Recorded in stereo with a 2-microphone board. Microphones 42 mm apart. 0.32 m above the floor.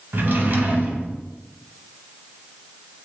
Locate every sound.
0.1 s a drawer: 50° right (ahead or behind), 0.7 m